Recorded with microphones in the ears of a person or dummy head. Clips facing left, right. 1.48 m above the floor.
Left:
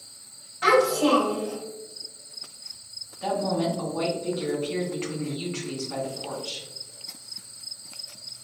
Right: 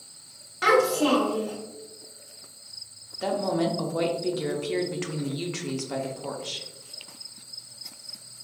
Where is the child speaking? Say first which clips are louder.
Left 1 dB; 60° right (ahead or behind), 2.0 m.